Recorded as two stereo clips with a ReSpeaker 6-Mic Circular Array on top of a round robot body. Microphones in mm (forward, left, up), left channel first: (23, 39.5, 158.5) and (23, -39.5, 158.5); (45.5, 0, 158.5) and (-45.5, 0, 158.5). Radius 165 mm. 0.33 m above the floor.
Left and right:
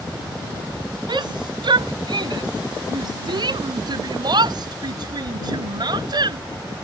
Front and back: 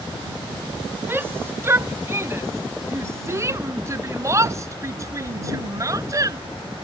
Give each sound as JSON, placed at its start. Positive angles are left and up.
{"t": 1.1, "sound": "a shout", "azimuth_deg": -115}